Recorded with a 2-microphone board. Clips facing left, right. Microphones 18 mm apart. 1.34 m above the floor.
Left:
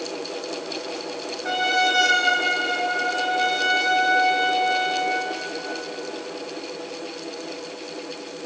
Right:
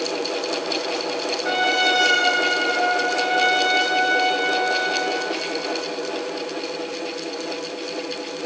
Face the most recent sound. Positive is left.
turn(degrees=-10)  # may be behind; listen again after turning